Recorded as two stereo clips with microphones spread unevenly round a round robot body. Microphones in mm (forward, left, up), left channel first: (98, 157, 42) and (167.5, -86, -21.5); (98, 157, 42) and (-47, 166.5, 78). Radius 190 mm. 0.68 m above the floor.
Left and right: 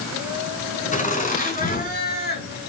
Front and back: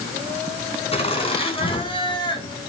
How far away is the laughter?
About 6.5 m.